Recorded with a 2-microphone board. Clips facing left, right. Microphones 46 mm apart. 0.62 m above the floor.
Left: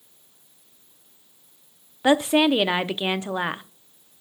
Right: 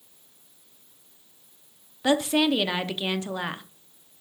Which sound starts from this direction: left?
A woman speaking, at 2.0 s.